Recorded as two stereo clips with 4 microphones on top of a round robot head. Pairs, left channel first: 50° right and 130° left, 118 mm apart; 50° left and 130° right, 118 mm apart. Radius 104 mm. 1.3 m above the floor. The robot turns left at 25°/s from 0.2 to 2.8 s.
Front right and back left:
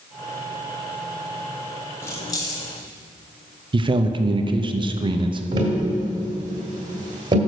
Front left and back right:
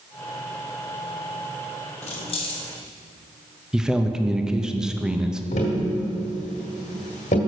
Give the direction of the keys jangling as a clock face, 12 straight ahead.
11 o'clock.